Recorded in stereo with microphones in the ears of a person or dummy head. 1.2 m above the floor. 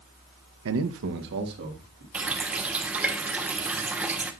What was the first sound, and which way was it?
A man speaking, 75° right (ahead or behind).